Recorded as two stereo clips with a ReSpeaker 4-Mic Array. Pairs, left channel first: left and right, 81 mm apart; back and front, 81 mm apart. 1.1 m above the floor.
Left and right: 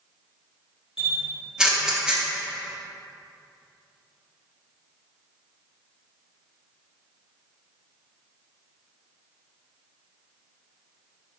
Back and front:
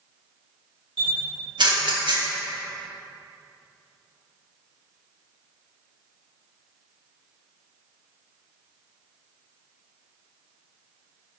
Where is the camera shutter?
10° right, 1.3 m.